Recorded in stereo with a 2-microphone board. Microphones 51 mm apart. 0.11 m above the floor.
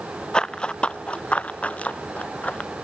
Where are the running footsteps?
15° left (ahead or behind); by 2.7 s 30° left (ahead or behind).